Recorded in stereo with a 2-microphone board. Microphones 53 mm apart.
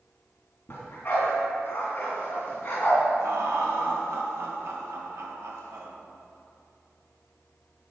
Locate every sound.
0.7 s a dog barking: 40° left (ahead or behind), 3 m
3.2 s laughter: 65° right (ahead or behind), 2.0 m